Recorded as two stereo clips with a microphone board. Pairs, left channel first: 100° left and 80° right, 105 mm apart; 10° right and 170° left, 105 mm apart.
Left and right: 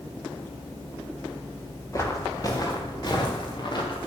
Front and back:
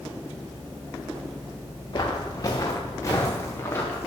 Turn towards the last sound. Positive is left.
turn(degrees=60)